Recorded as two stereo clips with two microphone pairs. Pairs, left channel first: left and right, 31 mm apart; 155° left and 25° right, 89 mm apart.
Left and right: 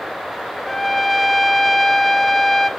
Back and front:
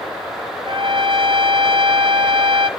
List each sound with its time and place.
0.7 s a trumpet: straight ahead, 1.4 m